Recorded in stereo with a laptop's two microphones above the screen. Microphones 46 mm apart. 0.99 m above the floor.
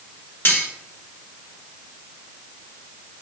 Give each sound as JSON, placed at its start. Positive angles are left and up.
{"t": 0.5, "sound": "cutlery clinking", "side_deg": 55, "distance_m": 2.5}